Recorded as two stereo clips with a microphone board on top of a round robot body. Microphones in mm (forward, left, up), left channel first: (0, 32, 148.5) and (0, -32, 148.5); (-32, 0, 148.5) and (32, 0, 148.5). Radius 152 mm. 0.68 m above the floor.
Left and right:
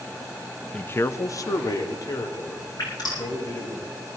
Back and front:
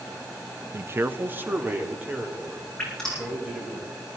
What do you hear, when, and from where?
0.7 s a man speaking: 20° left, 0.6 m; by 3.8 s 70° left, 5 m
2.8 s dripping: 95° left, 9.5 m